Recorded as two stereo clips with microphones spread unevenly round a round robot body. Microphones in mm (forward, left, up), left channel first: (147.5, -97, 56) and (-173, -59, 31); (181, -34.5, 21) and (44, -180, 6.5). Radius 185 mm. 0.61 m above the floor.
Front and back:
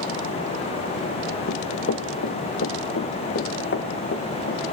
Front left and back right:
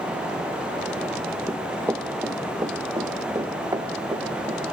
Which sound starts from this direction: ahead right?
Running footsteps, at 1.5 s.